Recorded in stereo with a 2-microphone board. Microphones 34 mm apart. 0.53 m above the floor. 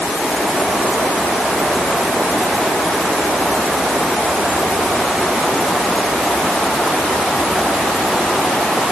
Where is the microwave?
I don't hear a microwave.